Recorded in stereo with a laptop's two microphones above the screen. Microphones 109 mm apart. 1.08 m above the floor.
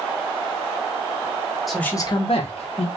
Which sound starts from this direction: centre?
A man speaking, at 1.7 s.